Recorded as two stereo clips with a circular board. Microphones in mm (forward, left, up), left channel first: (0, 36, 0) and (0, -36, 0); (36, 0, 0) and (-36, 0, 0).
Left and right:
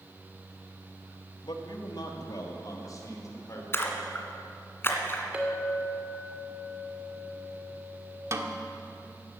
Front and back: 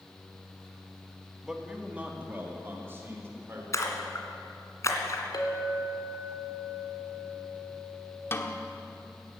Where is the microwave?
No microwave in this recording.